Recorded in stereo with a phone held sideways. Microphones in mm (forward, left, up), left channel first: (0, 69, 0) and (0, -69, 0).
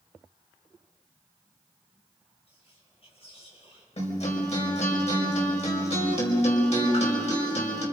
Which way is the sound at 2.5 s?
45° left (ahead or behind).